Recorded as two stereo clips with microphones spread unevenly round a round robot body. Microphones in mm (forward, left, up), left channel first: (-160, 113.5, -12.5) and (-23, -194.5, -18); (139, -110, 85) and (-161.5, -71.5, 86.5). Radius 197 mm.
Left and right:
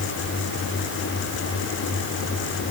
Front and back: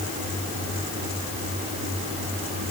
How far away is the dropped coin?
No dropped coin in this recording.